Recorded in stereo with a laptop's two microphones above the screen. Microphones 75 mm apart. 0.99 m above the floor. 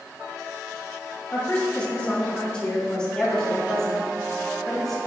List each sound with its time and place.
1.3 s a woman speaking: 20° left (ahead or behind), 2 m; by 5.0 s 5° left (ahead or behind), 4 m